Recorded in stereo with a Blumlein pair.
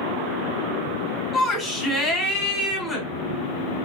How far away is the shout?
About 1.5 m.